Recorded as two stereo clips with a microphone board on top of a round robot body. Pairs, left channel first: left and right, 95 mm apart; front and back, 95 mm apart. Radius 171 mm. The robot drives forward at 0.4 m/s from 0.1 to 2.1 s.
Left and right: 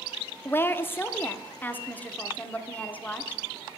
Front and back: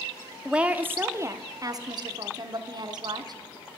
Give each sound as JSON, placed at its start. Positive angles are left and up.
{"t": 0.5, "sound": "a woman speaking", "azimuth_deg": 110, "distance_m": 0.9}